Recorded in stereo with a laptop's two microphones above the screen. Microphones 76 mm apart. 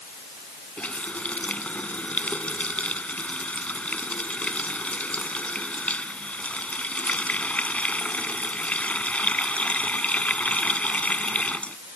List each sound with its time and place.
0.8 s a running tap: 15° left (ahead or behind)